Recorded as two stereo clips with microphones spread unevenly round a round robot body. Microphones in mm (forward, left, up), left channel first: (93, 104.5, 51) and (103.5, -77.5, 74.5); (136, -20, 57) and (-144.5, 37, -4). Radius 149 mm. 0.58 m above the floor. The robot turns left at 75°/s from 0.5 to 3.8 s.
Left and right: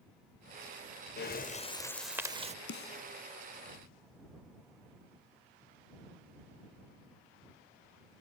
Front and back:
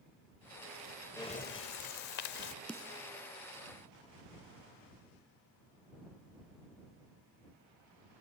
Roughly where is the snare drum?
Left.